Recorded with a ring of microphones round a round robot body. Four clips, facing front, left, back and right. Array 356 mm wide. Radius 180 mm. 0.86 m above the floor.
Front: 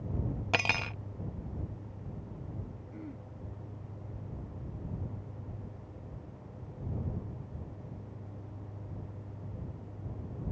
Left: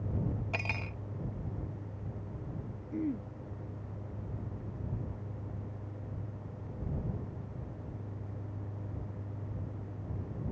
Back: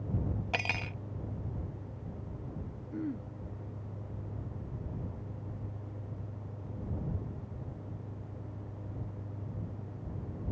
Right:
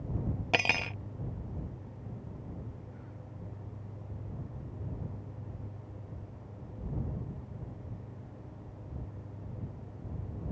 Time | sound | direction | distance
0.5 | cutlery clinking | 65° right | ?
2.9 | throat clearing | 120° left | ?